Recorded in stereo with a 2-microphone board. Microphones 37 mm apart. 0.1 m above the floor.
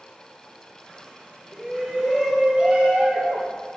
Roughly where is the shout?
Centre.